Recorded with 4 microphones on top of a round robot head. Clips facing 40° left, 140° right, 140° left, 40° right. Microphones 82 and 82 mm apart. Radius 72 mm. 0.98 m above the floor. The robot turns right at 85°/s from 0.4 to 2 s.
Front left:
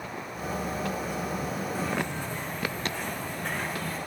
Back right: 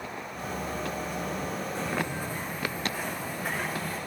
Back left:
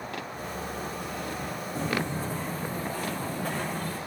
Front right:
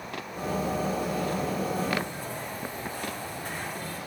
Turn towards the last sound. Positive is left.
turn(degrees=135)